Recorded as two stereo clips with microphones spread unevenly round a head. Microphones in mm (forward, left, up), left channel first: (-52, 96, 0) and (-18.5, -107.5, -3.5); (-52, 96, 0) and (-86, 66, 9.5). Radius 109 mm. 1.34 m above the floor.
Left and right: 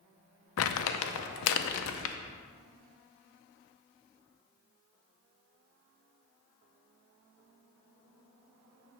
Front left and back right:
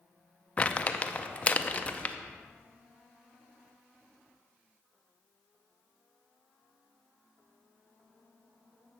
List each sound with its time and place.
0.6 s crumpling: 105° left, 0.6 m